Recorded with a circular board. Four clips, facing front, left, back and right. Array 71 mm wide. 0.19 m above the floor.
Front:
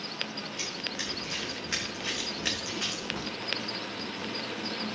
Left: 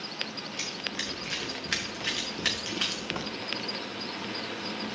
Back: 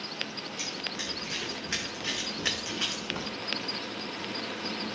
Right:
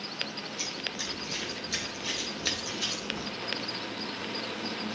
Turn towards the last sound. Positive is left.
turn(degrees=105)